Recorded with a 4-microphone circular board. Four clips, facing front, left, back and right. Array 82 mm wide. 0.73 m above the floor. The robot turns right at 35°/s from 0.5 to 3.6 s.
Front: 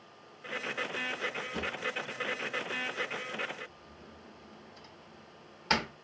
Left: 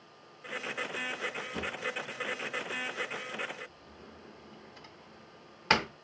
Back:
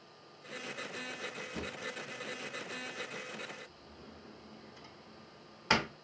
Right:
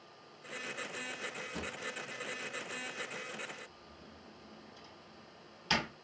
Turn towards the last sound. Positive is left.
turn(degrees=105)